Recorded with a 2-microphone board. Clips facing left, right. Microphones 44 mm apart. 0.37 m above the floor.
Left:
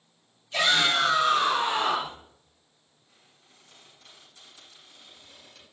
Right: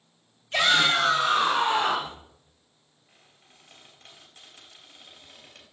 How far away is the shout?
About 3 m.